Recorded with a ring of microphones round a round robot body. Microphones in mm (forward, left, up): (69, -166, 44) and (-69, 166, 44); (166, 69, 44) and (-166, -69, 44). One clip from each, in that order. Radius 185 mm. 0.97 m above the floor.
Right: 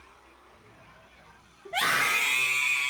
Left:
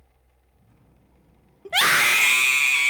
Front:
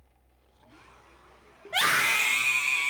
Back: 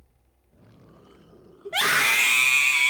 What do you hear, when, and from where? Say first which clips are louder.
1.6 s a scream: left 7 dB, back 3 dB; 105° left, 1.0 m; by 2.9 s 145° left, 1.6 m